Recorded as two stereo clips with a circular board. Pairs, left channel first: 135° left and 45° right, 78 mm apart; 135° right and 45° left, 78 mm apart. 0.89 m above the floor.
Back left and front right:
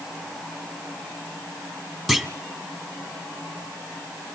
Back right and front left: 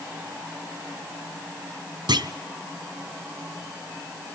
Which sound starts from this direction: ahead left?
A clunk, at 2.1 s.